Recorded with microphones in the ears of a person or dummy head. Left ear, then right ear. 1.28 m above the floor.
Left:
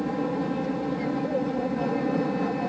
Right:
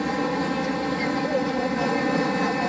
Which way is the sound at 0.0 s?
65° right (ahead or behind).